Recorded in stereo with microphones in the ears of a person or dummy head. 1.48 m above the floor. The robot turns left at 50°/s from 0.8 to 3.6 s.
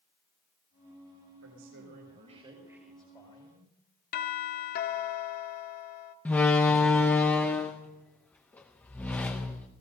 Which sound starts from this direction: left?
A doorbell, at 4.1 s.